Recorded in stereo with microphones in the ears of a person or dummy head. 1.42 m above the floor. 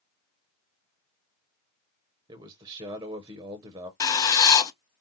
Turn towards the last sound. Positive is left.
turn(degrees=15)  # may be behind; listen again after turning